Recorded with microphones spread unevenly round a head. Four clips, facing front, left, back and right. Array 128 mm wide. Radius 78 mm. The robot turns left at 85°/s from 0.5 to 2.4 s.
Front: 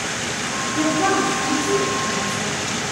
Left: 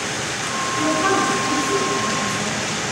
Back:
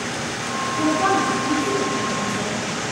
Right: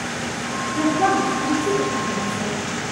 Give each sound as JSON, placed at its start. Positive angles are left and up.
{"t": 0.8, "sound": "a woman speaking", "azimuth_deg": -30, "distance_m": 5.0}